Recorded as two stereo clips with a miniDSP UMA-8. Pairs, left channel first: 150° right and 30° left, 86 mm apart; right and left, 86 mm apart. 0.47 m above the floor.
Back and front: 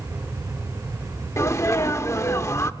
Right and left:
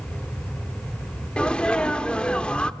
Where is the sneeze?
160° right, 0.8 m.